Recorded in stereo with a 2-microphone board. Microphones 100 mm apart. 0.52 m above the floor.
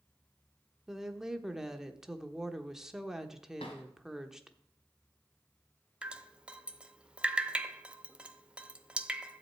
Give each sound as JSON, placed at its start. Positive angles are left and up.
{"t": 0.9, "sound": "a woman speaking", "side_deg": -5, "distance_m": 0.9}
{"t": 3.6, "sound": "a drawer", "side_deg": 65, "distance_m": 2.5}
{"t": 6.0, "sound": "dripping", "side_deg": -10, "distance_m": 0.6}